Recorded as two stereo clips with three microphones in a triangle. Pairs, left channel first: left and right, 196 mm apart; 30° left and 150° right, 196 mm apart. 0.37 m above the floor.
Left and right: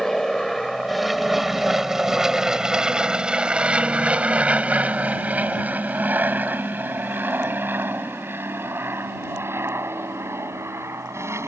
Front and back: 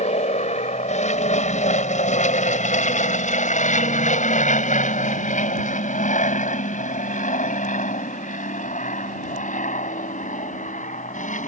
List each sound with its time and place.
0.0 s an aircraft: 5° left; by 11.5 s 15° right